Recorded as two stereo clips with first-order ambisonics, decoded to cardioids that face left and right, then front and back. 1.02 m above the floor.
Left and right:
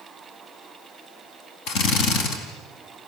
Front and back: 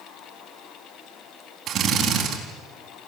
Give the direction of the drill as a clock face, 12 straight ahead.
8 o'clock.